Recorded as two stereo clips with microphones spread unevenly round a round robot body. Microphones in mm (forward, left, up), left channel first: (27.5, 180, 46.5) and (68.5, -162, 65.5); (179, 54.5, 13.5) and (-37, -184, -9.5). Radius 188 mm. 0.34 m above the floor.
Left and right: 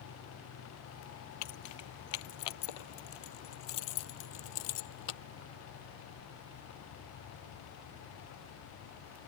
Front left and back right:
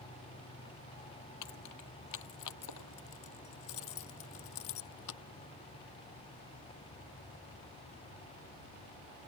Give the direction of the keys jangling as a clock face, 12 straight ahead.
9 o'clock.